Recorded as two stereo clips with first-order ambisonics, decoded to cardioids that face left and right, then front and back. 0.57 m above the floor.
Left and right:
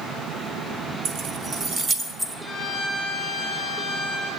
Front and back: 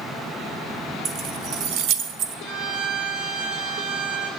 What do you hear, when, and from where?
1.1 s keys jangling: 130° right, 0.8 m; by 2.4 s 170° right, 1.5 m
2.5 s a violin: 165° left, 8 m